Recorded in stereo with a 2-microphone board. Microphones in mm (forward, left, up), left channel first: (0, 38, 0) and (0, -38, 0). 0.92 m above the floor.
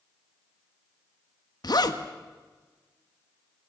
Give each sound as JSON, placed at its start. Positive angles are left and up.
{"t": 1.6, "sound": "a zipper", "side_deg": 60, "distance_m": 1.6}